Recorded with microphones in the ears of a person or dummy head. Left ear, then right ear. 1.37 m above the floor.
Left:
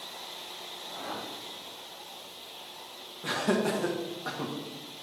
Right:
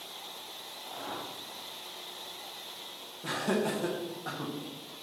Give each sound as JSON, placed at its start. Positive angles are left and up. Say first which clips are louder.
{"t": 0.8, "sound": "a whoosh", "louder": "left 1 dB", "side_deg": -40, "distance_m": 1.7}
{"t": 3.2, "sound": "laughter", "louder": "left 3 dB", "side_deg": 10, "distance_m": 1.2}